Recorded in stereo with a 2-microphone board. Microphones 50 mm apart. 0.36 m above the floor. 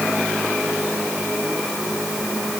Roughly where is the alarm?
No alarm in this recording.